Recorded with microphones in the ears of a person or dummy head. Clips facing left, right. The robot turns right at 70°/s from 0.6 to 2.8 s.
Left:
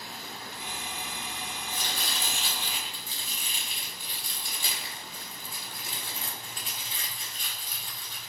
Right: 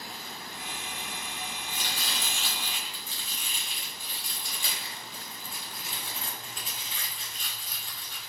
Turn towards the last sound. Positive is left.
turn(degrees=30)  # may be behind; listen again after turning